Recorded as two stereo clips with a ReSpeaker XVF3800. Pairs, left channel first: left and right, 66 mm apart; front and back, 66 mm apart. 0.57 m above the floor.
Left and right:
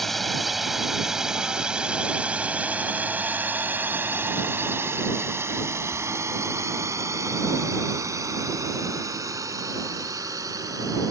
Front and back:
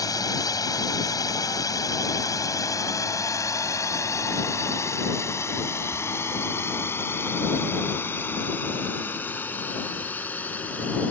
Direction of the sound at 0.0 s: Straight ahead.